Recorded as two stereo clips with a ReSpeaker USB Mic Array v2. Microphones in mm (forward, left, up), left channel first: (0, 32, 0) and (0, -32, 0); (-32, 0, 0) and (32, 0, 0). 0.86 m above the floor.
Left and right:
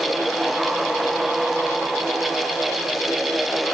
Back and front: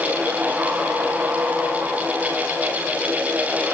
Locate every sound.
Only background noise.